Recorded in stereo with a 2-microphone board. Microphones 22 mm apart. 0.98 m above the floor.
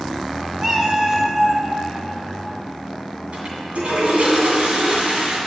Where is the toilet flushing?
65° right (ahead or behind), 2.5 m.